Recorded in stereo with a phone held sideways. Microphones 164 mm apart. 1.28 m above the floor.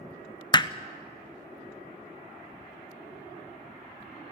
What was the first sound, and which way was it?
Hammering, 25° left (ahead or behind).